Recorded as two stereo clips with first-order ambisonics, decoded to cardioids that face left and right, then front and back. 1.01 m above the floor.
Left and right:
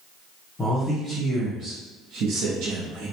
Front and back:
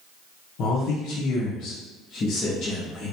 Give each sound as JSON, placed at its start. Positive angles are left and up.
{"t": 0.6, "sound": "a man speaking", "azimuth_deg": 15, "distance_m": 0.7}